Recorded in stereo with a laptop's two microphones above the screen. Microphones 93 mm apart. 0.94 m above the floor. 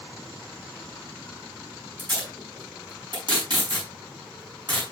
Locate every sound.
2.0 s tape being pulled: 50° right (ahead or behind), 5.5 m